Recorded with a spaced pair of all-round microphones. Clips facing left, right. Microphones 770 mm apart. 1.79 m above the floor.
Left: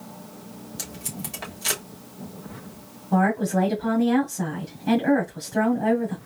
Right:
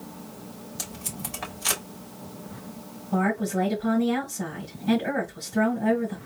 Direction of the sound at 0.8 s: 60° left (ahead or behind).